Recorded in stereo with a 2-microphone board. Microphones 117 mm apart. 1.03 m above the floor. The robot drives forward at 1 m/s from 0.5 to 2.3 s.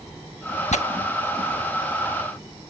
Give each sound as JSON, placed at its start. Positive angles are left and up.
{"t": 0.7, "sound": "tearing paper", "side_deg": 80}